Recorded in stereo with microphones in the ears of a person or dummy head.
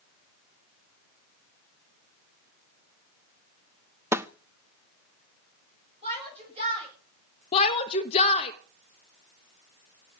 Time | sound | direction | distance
4.1 | a snare drum | 15° right (ahead or behind) | 0.5 m
6.0 | a shout | 30° right (ahead or behind) | 9 m
7.5 | a shout | 40° left (ahead or behind) | 1.1 m